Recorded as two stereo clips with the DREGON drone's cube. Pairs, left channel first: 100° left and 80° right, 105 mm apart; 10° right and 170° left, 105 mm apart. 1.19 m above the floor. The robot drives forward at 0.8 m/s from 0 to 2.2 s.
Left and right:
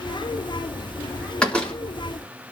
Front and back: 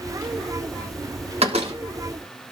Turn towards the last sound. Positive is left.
turn(degrees=180)